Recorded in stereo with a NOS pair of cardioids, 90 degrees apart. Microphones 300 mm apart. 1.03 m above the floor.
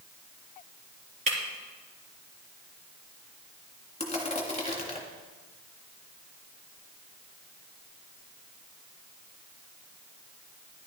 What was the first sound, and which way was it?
Breaking glass, 25° right.